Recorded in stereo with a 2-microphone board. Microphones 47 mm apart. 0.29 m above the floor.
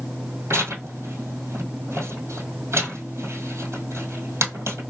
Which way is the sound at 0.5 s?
80° right.